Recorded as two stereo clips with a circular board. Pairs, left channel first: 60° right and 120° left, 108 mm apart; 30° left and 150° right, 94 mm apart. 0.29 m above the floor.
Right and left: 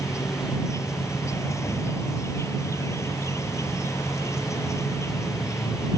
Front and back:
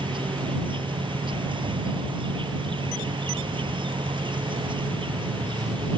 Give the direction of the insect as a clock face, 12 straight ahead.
4 o'clock.